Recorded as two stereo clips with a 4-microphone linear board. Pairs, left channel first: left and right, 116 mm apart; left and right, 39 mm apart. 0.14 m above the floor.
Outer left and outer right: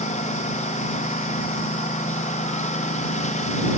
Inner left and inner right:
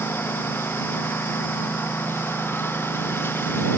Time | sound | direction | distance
0.0 | a lawn mower | 90° left | ?